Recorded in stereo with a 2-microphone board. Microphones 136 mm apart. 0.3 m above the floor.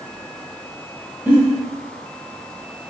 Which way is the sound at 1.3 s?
15° right (ahead or behind).